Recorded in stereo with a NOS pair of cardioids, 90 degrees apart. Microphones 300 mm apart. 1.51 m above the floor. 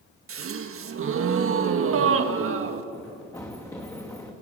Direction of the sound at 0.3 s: 50° right.